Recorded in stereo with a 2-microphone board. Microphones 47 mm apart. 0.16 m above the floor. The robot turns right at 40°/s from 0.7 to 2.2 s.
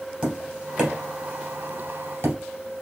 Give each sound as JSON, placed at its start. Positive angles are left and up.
{"t": 0.2, "sound": "tapping", "side_deg": -20, "distance_m": 2.0}